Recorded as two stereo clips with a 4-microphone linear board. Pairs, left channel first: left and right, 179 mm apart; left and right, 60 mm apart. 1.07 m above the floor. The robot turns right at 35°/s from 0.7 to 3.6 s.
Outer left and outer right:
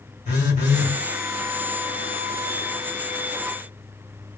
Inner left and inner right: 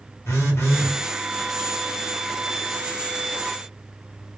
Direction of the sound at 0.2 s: 45° left (ahead or behind).